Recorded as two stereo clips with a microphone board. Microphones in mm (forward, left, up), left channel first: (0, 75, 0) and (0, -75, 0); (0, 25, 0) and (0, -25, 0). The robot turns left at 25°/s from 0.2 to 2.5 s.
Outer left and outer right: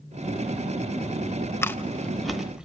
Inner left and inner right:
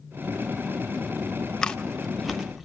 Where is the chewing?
15° left (ahead or behind), 0.5 m; by 2.6 s 5° right (ahead or behind), 0.5 m.